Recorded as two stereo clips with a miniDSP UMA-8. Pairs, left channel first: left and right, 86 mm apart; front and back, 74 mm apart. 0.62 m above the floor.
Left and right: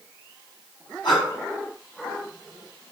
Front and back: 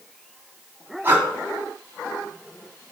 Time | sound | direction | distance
1.0 | breathing | 115° left | 1.9 m